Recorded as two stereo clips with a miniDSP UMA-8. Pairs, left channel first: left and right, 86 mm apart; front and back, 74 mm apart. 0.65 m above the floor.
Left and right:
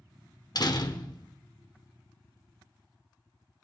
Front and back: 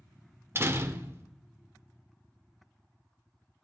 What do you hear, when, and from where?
0.6 s a door slam: 125° left, 1.3 m